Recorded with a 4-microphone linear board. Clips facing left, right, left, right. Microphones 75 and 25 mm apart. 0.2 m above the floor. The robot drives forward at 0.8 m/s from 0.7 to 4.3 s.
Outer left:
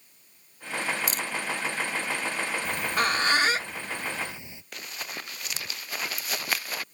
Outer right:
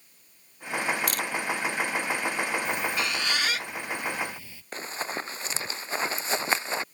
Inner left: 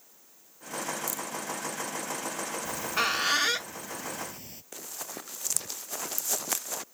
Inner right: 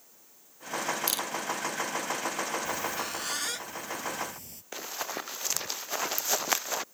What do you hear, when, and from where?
1.1 s a camera shutter: 60° right (ahead or behind); by 1.3 s 70° right (ahead or behind)
2.6 s a squeak: 60° left (ahead or behind); by 4.6 s 20° left (ahead or behind)
4.7 s running footsteps: 35° right (ahead or behind); by 6.8 s 25° right (ahead or behind)